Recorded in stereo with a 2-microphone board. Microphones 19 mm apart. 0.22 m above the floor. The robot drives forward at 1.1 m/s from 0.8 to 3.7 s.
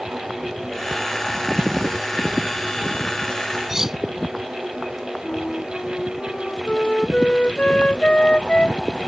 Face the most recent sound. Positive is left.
turn(degrees=70)  # may be behind; listen again after turning